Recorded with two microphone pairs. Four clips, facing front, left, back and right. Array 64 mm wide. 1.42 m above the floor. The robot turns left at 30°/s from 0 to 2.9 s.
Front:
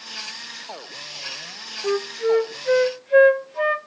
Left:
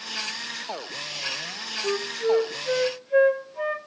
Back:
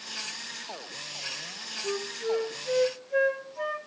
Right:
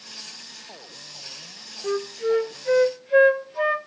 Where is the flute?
5° left, 0.6 m; by 3.8 s 25° right, 0.6 m.